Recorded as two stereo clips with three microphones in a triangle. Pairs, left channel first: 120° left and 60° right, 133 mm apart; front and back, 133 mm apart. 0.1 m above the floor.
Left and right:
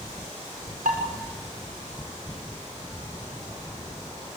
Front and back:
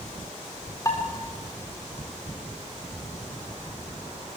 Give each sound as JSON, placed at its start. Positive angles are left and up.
{"t": 0.8, "sound": "dishes clattering", "azimuth_deg": -70, "distance_m": 8.0}